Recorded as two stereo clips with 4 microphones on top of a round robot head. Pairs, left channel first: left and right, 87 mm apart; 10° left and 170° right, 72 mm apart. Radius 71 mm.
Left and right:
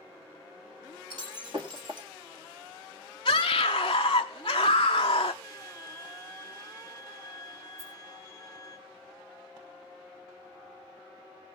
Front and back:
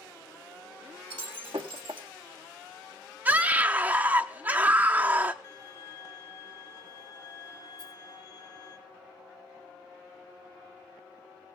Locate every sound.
1.1 s breaking glass: 135° right, 1.4 m
3.2 s a scream: 135° left, 0.6 m
5.4 s a violin: 35° left, 2.5 m
7.8 s a rattle: 35° right, 4 m